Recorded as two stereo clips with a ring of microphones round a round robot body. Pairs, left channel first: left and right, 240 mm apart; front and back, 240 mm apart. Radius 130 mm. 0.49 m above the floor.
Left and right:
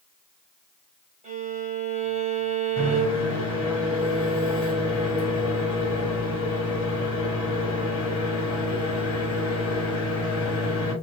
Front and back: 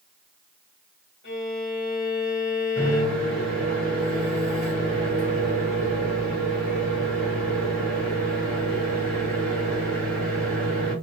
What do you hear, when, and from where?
1.2 s a violin: 30° right, 1.5 m
2.8 s a microwave: 85° left, 1.9 m